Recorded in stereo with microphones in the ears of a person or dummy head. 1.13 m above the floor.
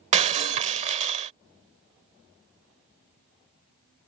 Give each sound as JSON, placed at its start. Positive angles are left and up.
{"t": 0.1, "sound": "breaking glass", "side_deg": -35}